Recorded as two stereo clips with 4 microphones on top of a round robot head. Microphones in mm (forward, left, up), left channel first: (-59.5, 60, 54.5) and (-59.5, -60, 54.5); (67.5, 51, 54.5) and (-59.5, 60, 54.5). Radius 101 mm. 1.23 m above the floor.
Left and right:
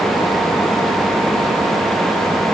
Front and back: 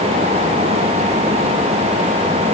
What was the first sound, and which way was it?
Only background noise.